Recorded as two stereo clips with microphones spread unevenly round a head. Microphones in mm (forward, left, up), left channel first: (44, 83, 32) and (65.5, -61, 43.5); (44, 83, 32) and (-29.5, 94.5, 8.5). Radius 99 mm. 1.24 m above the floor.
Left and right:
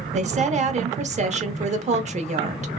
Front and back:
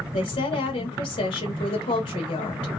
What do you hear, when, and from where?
0.1 s a woman speaking: 35° right, 0.9 m